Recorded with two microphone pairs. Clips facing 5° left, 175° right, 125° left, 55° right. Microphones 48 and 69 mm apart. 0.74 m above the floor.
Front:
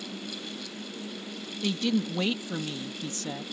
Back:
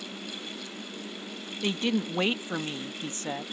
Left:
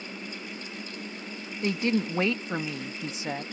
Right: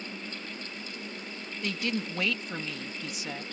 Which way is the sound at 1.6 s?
160° left.